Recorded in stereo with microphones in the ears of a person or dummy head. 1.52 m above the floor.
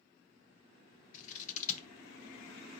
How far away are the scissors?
About 0.7 m.